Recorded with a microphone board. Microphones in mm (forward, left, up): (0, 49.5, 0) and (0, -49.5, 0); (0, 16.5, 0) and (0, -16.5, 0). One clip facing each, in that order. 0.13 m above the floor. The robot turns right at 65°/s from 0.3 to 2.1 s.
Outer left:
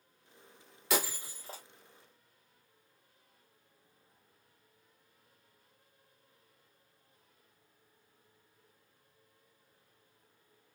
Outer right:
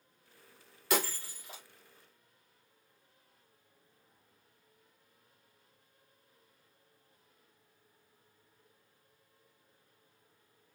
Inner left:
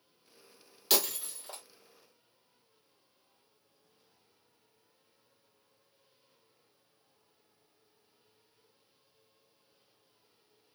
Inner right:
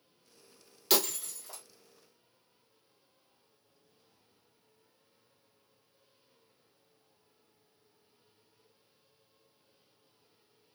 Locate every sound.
0.9 s breaking glass: centre (ahead or behind), 0.9 m; by 1.6 s 45° left (ahead or behind), 0.9 m